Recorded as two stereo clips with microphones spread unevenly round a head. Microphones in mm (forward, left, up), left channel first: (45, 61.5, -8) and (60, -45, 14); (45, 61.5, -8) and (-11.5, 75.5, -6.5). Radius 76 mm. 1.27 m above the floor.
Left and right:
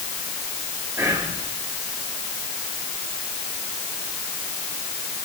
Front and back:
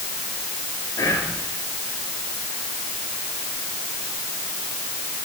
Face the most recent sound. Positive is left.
turn(degrees=-10)